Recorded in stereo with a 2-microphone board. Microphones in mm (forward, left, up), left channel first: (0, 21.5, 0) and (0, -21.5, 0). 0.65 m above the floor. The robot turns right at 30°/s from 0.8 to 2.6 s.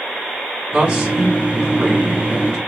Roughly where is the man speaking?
Ahead right.